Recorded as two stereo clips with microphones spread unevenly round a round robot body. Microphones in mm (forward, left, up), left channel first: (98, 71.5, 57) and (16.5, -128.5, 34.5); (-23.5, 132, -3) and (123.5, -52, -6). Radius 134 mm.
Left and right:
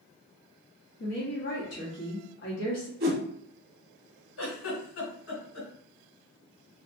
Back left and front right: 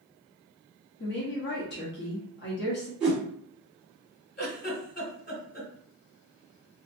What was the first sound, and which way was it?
A woman speaking, 95° left.